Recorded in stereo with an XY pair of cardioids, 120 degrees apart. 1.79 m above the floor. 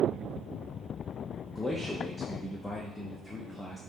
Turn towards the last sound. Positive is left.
turn(degrees=15)